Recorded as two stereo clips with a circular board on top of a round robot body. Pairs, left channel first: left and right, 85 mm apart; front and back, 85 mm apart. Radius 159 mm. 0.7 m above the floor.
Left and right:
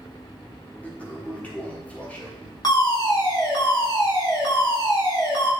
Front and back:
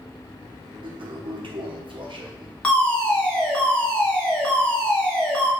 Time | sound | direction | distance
0.8 | a toilet flushing | 165° left | 1.5 m
2.6 | a fire alarm | 75° left | 2.5 m